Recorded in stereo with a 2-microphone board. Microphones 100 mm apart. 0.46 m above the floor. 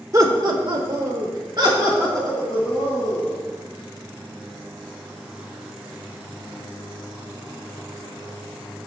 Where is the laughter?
35° right (ahead or behind), 0.9 m; by 3.4 s 40° right (ahead or behind), 3.5 m.